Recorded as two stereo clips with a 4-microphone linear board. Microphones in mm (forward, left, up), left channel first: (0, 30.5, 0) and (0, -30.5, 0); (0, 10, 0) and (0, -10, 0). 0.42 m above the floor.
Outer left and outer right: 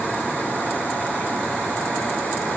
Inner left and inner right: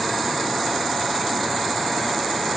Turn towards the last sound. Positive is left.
No sound to turn to.